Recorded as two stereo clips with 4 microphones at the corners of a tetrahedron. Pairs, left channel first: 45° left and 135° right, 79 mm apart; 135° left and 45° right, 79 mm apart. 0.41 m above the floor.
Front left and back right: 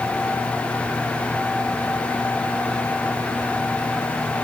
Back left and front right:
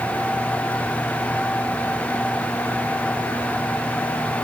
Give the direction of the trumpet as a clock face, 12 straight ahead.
I don't hear a trumpet.